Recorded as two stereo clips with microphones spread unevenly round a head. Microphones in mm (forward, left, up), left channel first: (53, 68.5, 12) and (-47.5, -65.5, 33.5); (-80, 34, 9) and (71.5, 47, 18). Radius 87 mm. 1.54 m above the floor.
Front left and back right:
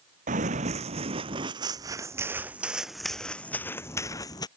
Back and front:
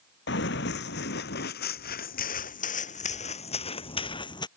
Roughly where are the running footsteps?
Behind.